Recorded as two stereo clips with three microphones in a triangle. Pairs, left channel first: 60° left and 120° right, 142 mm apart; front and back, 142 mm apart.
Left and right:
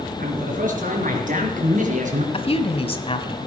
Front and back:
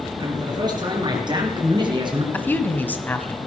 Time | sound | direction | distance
0.2 | a man speaking | 120° right | 5 m
2.3 | a woman speaking | 70° left | 1.3 m